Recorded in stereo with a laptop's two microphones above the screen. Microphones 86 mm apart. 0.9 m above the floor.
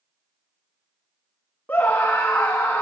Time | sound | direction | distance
1.7 | a scream | 25° left (ahead or behind) | 1.1 m